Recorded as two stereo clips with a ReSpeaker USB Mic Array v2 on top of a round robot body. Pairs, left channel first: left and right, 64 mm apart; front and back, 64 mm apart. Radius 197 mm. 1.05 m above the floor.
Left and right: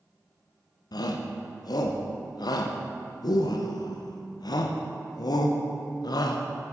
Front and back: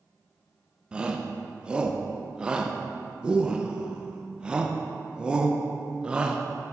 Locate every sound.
0.9 s a shout: 105° left, 0.6 m